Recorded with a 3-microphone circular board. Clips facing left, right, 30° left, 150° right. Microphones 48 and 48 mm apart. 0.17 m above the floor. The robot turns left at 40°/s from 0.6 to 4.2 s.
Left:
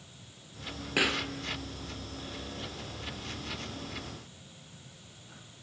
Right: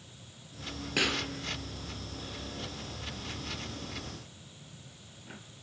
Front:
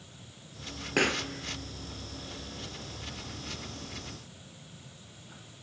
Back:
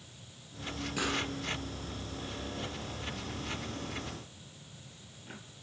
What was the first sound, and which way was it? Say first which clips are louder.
A pop: left 2 dB, front 6 dB; 15° left.